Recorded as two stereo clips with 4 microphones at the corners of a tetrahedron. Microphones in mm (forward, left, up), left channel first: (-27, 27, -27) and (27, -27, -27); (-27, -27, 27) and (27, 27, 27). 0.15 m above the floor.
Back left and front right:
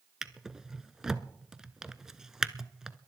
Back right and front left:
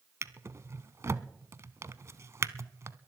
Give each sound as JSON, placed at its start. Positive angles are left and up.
{"t": 0.2, "sound": "a drawer", "azimuth_deg": 35, "distance_m": 0.5}